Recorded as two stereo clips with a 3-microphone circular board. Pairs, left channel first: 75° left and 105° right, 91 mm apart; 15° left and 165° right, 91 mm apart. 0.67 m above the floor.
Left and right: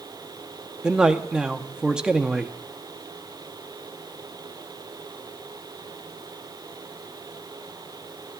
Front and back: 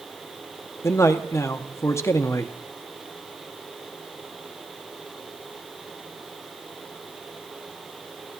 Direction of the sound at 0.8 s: 30° right.